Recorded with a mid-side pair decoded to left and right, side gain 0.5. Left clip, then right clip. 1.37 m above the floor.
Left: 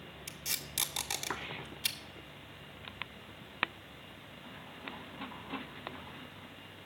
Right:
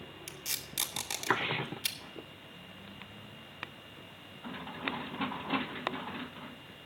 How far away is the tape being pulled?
About 1.8 m.